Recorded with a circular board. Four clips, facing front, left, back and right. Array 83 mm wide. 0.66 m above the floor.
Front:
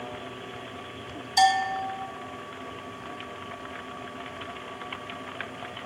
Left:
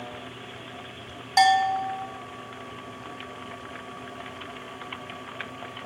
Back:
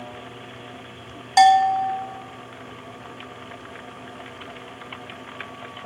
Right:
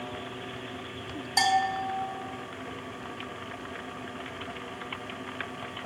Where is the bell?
165° left, 0.8 m.